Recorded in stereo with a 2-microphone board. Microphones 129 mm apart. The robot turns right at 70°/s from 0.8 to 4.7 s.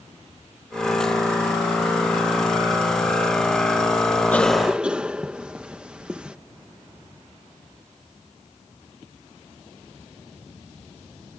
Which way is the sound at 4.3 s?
15° left (ahead or behind).